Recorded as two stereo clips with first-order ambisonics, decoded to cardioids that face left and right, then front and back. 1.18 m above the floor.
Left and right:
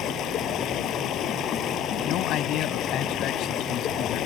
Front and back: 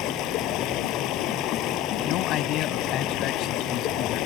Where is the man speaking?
45° left.